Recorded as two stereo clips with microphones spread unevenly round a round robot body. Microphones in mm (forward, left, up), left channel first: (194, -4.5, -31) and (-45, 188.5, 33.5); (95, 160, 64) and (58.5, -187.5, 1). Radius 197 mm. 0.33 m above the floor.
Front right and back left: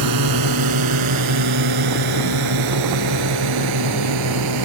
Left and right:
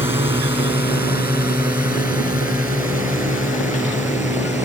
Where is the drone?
175° right; by 4.7 s straight behind.